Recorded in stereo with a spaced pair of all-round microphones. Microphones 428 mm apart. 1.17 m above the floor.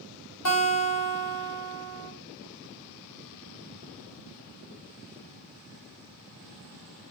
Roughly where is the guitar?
Left.